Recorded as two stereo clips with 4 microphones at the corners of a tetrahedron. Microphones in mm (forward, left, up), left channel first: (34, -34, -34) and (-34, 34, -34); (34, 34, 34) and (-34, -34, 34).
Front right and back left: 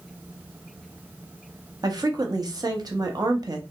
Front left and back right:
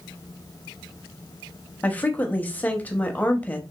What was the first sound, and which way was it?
A woman speaking, 110° left.